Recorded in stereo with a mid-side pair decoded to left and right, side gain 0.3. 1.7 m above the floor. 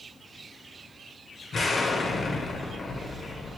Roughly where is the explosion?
Ahead left.